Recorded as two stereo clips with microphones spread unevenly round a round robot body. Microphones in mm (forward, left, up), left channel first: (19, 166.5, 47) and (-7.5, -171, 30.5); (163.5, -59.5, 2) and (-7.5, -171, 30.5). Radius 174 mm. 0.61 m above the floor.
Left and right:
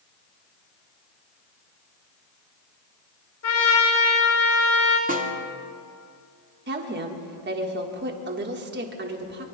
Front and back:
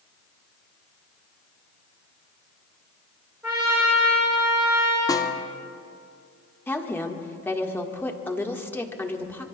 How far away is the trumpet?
About 4 m.